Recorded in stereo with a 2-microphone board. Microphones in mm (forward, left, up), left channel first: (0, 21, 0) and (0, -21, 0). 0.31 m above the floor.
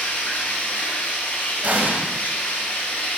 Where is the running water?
45° left (ahead or behind), 3 m.